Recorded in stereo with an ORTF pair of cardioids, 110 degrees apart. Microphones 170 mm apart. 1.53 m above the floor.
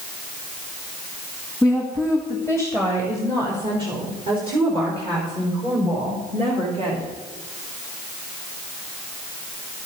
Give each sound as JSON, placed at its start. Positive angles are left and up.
{"t": 1.6, "sound": "a woman speaking", "azimuth_deg": 0, "distance_m": 2.0}